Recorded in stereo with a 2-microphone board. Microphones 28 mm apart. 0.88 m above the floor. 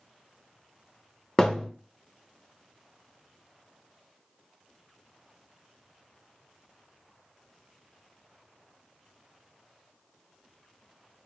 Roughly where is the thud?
Left.